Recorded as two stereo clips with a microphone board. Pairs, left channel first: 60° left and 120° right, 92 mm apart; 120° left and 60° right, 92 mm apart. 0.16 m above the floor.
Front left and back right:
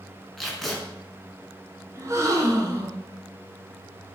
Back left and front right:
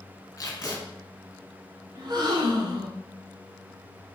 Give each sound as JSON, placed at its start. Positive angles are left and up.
{"t": 0.4, "sound": "tape being pulled", "azimuth_deg": 145, "distance_m": 1.1}
{"t": 1.9, "sound": "a gasp", "azimuth_deg": -70, "distance_m": 1.0}